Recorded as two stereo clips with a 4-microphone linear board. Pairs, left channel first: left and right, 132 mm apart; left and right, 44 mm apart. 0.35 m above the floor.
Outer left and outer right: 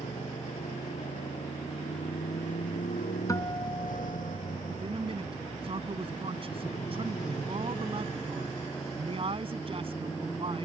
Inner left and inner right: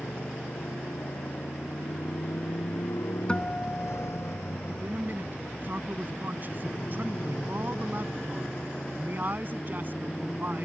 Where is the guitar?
25° left (ahead or behind).